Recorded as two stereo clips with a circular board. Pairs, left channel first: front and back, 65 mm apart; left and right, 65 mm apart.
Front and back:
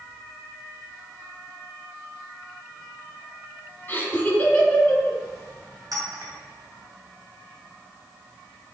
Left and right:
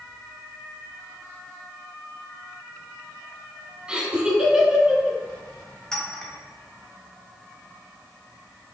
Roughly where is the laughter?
Ahead right.